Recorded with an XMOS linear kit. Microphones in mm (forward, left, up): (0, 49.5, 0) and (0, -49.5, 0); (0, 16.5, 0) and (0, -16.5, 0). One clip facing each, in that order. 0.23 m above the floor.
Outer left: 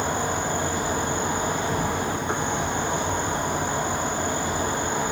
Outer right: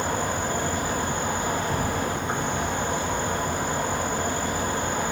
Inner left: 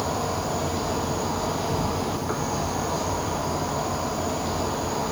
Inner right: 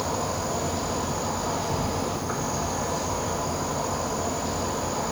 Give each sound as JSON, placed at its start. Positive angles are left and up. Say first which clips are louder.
{"t": 0.0, "sound": "an insect", "louder": "outer left 1 dB, inner left 1 dB", "side_deg": 25, "distance_m": 1.1}